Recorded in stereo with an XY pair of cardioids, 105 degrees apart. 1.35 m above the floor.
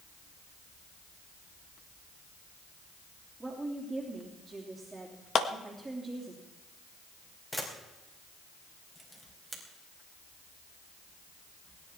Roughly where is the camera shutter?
Ahead.